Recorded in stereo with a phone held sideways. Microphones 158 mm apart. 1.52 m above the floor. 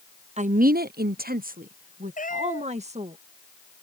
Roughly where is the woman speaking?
Right.